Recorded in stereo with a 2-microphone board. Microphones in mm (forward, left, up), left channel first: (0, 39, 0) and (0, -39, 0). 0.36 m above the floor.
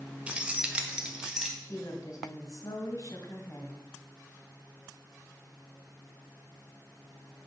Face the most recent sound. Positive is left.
turn(degrees=45)  # may be behind; listen again after turning